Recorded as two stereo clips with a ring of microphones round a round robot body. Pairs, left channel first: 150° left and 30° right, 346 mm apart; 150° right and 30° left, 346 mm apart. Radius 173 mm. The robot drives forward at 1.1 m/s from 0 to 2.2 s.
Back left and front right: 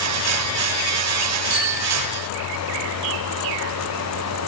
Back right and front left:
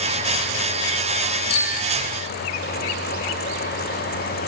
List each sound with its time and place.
1.5 s a bicycle bell: 75° right, 2.5 m; by 2.0 s 90° right, 2.5 m